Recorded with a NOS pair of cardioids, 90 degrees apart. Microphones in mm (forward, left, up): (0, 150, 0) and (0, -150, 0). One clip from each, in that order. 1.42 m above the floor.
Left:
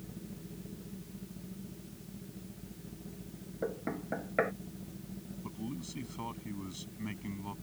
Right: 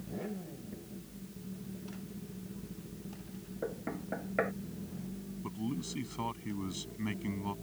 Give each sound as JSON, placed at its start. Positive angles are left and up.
{"t": 3.6, "sound": "knocking", "azimuth_deg": 15}
{"t": 5.4, "sound": "a man speaking", "azimuth_deg": -30}